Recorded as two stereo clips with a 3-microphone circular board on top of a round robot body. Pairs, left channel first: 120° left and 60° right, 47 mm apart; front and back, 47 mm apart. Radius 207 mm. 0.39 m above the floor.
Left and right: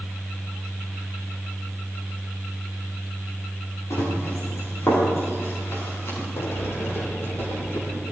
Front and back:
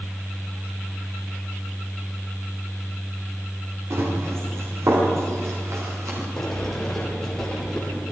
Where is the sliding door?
85° left, 6 m.